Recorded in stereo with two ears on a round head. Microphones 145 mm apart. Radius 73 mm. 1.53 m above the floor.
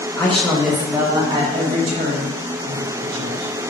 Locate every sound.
0.2 s a woman speaking: 15° left (ahead or behind), 1.5 m; by 3.7 s 65° right (ahead or behind), 3 m